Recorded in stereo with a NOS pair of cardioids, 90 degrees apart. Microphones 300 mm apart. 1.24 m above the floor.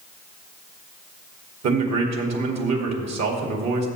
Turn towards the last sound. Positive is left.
turn(degrees=-60)